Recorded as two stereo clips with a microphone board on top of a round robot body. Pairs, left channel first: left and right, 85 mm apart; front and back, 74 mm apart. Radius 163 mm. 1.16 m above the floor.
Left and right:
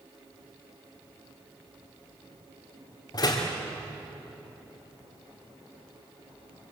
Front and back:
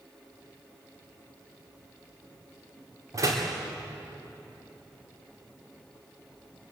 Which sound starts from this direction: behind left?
A door slam, at 3.1 s.